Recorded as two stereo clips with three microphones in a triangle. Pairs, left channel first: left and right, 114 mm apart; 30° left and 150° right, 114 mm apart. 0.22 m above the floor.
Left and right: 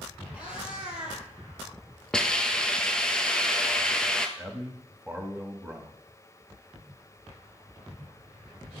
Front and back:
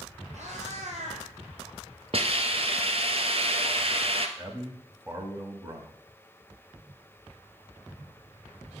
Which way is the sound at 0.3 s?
170° right.